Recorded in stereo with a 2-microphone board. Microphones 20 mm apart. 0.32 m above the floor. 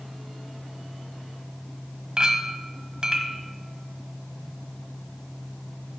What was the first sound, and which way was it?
A clink, 45° right (ahead or behind).